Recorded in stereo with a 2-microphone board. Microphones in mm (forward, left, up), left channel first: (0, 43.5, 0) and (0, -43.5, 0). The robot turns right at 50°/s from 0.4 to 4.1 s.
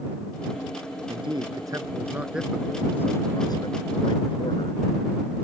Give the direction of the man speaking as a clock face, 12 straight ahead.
2 o'clock.